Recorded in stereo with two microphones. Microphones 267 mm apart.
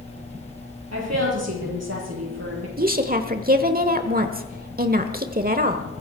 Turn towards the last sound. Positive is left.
turn(degrees=-35)  # may be behind; listen again after turning